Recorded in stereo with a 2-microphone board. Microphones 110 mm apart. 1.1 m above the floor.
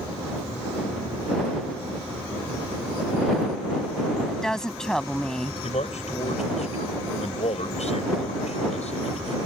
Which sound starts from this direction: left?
A man speaking, at 5.6 s.